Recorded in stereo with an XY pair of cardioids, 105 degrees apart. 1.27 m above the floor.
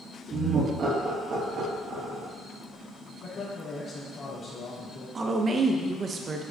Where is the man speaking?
50° left, 2.5 m.